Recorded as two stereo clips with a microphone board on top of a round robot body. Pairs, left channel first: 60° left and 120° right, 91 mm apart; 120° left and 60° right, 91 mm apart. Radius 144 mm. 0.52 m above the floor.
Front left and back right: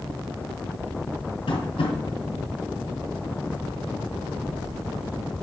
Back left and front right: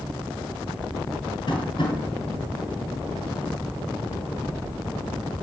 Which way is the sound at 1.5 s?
80° left.